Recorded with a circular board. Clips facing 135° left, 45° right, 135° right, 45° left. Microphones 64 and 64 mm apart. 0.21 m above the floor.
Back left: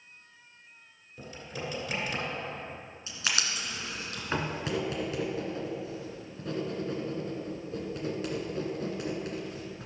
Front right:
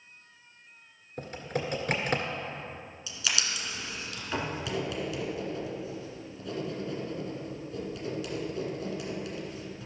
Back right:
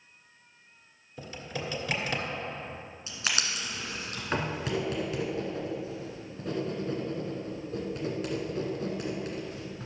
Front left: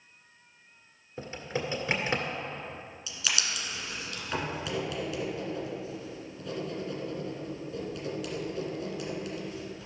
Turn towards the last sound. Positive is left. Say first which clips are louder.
# back left 1 dB, back right 1 dB
turn(degrees=180)